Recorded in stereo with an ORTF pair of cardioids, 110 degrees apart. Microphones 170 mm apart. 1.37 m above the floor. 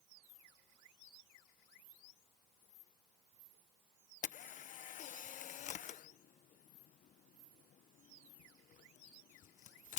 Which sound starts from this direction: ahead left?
A camera shutter, at 4.2 s.